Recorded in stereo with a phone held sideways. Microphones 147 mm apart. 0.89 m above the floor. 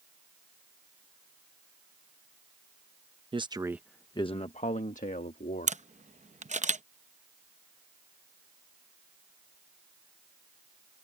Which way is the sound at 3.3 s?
35° right (ahead or behind).